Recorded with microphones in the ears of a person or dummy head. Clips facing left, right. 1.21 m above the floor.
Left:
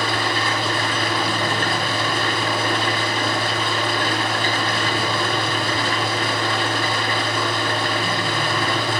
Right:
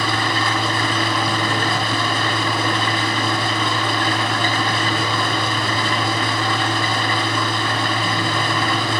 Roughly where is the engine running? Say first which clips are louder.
Right 1 dB; right.